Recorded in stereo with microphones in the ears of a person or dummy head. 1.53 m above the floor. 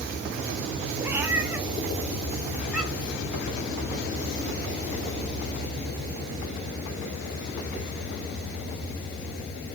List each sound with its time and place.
1.0 s a cat meowing: 20° right (ahead or behind), 1.4 m; by 3.2 s 5° right (ahead or behind), 3.5 m